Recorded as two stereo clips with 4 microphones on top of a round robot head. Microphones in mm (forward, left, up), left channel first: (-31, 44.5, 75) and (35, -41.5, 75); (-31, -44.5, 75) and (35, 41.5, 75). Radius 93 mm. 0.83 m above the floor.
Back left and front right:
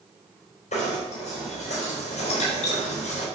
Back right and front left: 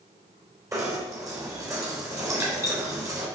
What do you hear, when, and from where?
0.7 s knocking: 115° left, 3.5 m